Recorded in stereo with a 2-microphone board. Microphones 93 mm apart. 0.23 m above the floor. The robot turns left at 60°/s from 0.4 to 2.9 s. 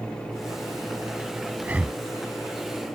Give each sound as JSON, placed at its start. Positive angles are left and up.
{"t": 1.6, "sound": "breathing", "side_deg": -20}